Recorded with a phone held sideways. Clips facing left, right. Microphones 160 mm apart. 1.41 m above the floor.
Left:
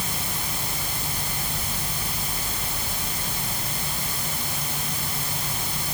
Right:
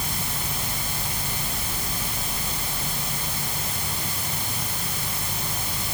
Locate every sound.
Only background noise.